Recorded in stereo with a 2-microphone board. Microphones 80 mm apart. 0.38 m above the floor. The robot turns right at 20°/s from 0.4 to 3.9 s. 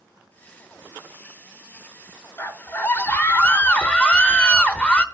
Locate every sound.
2.4 s a scream: 25° left (ahead or behind), 1.0 m; by 5.0 s 15° left (ahead or behind), 1.0 m